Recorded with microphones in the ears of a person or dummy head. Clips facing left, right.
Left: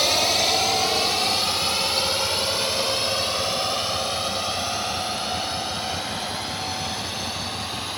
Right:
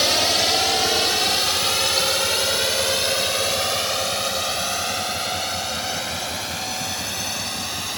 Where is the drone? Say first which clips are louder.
Right 1 dB; 10° right (ahead or behind); by 8.0 s 30° right (ahead or behind).